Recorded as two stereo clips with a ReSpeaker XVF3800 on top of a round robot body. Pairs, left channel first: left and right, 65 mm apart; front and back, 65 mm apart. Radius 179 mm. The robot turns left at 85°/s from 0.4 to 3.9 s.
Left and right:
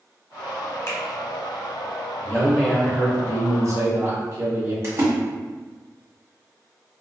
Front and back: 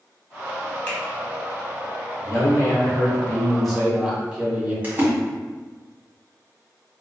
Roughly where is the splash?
Behind right.